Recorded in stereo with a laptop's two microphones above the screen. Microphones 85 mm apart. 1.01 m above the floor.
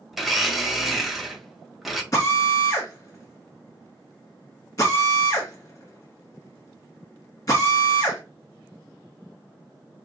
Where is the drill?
35° left (ahead or behind), 1.6 m.